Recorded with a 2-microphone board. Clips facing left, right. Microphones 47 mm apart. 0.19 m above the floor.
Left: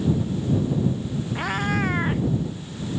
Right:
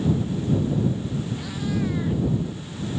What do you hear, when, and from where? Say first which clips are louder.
1.4 s a cat meowing: left 7 dB; 55° left (ahead or behind)